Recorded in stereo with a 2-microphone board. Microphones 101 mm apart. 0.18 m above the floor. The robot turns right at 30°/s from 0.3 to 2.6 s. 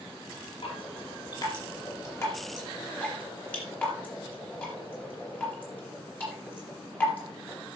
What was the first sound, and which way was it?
Dripping, 70° left (ahead or behind).